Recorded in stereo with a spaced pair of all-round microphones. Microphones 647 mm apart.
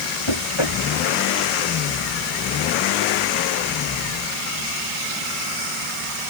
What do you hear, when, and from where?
0.3 s knocking: 45° left (ahead or behind)